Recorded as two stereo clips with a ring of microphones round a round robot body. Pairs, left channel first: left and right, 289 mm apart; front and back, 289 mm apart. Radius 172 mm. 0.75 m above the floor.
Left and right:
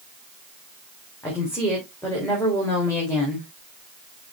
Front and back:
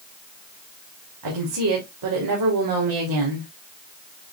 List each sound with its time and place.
1.2 s a woman speaking: 170° left, 3 m